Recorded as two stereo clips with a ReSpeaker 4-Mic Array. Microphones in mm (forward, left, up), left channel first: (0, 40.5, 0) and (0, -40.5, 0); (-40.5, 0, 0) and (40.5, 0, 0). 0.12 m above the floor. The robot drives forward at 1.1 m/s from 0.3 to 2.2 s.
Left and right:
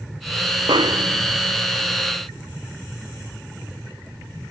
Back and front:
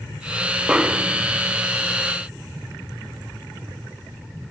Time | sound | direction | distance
0.7 | a snare drum | 80° right | ?